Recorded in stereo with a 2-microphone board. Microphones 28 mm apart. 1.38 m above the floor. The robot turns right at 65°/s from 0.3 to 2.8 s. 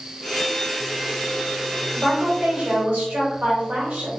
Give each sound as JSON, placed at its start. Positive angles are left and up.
{"t": 1.9, "sound": "a woman speaking", "azimuth_deg": -155, "distance_m": 1.2}